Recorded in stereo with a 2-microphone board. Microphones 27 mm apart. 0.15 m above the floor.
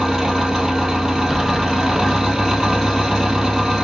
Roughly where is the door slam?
Centre.